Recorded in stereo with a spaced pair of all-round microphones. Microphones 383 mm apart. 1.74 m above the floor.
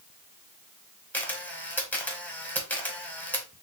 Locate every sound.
1.1 s a camera shutter: 5° left (ahead or behind), 1.0 m